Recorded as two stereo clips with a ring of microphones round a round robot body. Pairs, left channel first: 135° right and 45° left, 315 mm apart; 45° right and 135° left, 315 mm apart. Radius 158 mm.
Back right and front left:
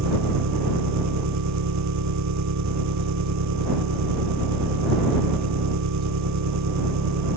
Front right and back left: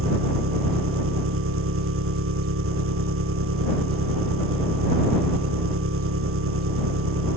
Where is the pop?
No pop in this recording.